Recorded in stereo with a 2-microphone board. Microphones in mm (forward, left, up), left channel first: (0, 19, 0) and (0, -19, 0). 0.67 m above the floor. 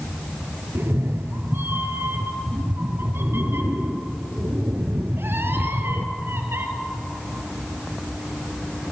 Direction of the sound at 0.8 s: 75° right (ahead or behind).